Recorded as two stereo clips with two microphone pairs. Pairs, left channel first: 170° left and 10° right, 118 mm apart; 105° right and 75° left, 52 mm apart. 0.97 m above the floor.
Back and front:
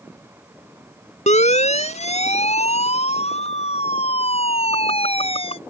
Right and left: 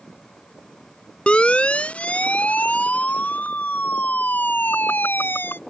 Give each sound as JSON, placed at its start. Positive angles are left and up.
{"t": 1.3, "sound": "a siren", "azimuth_deg": -170}